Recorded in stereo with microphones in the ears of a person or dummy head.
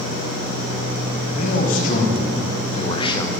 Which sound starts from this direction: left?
A man speaking, at 1.2 s.